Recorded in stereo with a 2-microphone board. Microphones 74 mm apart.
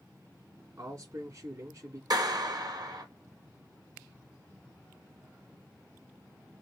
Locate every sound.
0.8 s a man speaking: 45° right (ahead or behind), 2.5 m
2.1 s a clap: 65° right (ahead or behind), 2 m